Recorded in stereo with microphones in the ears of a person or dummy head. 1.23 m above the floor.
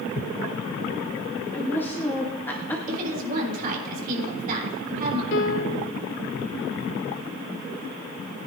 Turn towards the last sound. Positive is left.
turn(degrees=70)  # may be behind; listen again after turning